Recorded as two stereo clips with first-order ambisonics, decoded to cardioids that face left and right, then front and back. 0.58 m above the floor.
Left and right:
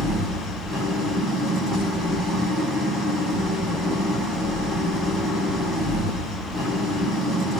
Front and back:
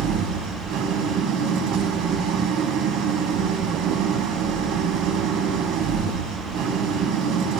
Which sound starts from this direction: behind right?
An engine running, at 0.0 s.